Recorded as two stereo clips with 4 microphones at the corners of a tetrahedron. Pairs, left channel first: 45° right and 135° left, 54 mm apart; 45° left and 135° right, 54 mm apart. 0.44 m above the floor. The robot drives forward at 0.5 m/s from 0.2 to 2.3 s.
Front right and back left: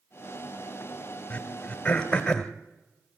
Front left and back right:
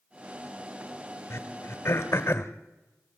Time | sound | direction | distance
1.3 | throat clearing | 20° left | 2 m